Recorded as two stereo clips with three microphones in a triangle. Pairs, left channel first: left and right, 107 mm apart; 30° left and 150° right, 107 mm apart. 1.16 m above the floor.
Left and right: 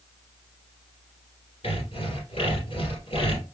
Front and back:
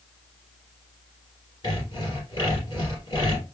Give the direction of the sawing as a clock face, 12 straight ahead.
10 o'clock.